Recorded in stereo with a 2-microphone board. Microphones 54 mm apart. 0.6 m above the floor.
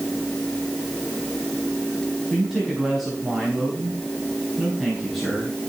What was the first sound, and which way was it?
A man speaking, 5° left (ahead or behind).